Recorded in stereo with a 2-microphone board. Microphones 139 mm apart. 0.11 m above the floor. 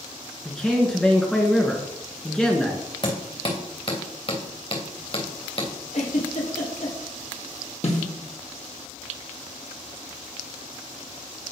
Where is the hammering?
40° left (ahead or behind), 3 m.